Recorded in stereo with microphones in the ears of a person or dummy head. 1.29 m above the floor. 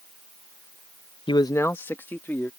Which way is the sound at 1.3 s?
20° left (ahead or behind).